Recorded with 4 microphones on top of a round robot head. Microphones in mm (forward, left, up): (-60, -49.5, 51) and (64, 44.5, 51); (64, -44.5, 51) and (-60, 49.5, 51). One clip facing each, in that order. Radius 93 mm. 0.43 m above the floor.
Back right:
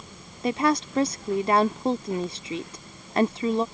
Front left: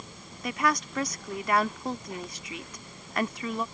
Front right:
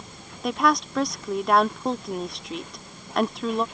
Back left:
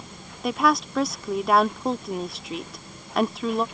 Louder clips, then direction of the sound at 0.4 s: Back right 6 dB, even; 130° right.